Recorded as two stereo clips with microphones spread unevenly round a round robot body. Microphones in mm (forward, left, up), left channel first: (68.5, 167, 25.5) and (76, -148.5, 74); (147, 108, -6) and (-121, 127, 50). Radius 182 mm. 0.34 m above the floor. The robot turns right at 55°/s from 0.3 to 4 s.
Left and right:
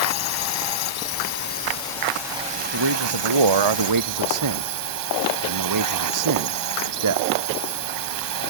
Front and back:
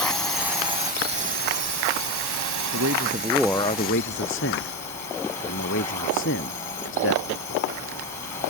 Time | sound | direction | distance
0.0 | a drone | 75° left | ?
2.7 | a man speaking | 130° right | ?